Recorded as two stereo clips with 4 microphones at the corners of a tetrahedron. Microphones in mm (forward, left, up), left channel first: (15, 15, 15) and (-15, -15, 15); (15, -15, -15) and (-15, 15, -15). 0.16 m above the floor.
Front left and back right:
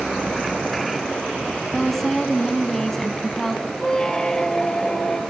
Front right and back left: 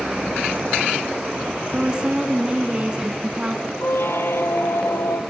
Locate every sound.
1.7 s a woman speaking: 120° left, 1.3 m
3.8 s a squeak: 30° right, 1.5 m